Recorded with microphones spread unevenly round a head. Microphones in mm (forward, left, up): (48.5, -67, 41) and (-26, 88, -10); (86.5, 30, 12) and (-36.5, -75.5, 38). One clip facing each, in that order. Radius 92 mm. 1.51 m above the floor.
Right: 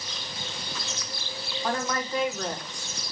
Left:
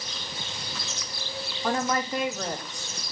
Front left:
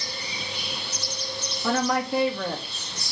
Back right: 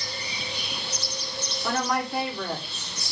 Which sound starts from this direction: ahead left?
A woman speaking, at 1.6 s.